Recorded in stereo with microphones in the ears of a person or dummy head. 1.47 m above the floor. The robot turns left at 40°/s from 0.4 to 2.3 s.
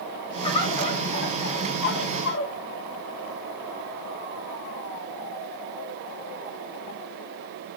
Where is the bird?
145° left, 3.5 m; by 2.5 s 75° left, 3.5 m.